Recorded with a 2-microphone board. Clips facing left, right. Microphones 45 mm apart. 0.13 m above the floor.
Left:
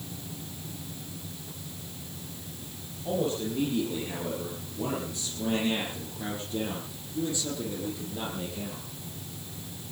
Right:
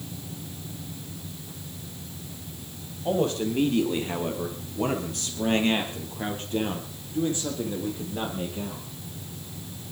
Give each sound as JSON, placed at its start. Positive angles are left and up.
{"t": 3.0, "sound": "a man speaking", "side_deg": -65, "distance_m": 4.0}